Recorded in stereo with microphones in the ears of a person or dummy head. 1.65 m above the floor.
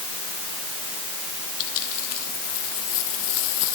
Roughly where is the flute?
No flute in this recording.